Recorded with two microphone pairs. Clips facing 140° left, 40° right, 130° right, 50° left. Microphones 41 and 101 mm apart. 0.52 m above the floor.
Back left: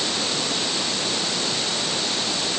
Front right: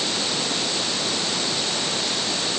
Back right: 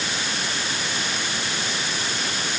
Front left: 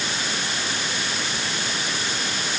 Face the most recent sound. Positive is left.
No sound to turn to.